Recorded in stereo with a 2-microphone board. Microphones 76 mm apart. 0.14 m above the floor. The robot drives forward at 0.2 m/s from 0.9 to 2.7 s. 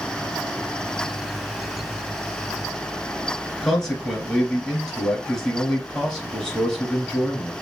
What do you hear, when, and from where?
3.6 s a man speaking: 5° left (ahead or behind), 1.9 m